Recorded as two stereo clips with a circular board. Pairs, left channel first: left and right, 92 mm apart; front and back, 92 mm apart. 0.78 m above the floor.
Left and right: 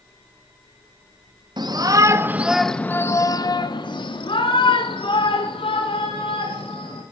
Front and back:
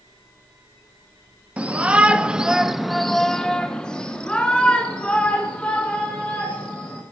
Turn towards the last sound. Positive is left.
turn(degrees=75)